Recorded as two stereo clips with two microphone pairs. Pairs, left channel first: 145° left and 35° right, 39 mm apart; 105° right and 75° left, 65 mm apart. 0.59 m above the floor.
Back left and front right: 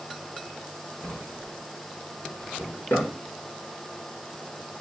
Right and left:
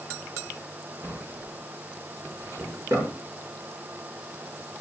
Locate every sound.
1.0 s a drawer: 110° left, 5.5 m